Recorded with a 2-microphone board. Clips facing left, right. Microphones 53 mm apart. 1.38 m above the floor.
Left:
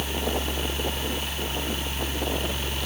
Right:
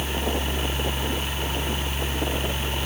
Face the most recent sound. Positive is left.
No sound to turn to.